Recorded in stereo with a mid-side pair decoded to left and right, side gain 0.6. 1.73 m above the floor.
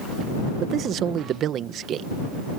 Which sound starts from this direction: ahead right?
A man speaking, at 0.6 s.